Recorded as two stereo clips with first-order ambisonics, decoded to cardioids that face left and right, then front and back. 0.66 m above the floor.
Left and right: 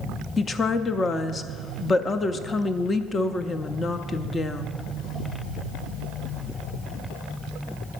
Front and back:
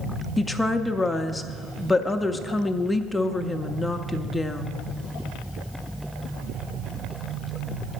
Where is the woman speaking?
65° left, 0.5 m.